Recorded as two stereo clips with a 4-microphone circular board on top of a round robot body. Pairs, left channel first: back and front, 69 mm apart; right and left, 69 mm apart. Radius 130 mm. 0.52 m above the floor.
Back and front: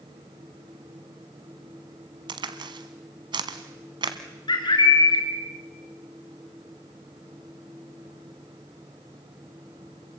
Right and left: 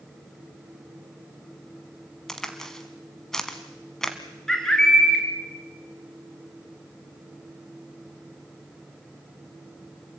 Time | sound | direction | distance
2.3 | a crack | 5° right | 1.2 m
4.5 | a bird | 170° right | 3 m